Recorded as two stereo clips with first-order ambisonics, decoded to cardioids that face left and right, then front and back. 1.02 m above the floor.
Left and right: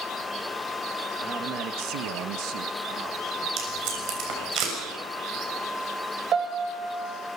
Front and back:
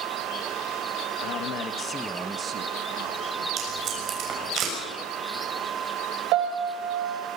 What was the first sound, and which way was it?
A man speaking, 25° right.